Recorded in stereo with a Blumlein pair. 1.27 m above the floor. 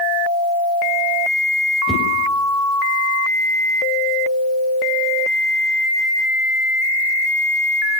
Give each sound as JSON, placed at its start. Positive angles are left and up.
{"t": 1.9, "sound": "a whoosh", "azimuth_deg": 5, "distance_m": 5.0}